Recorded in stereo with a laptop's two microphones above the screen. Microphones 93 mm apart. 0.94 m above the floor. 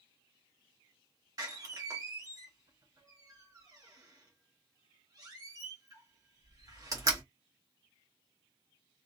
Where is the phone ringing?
I don't hear a phone ringing.